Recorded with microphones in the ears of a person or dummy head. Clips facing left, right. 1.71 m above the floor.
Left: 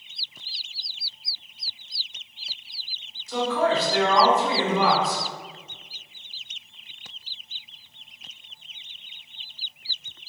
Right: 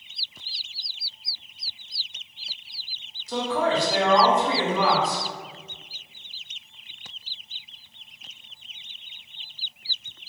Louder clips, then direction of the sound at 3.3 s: Left 1 dB; 35° right (ahead or behind).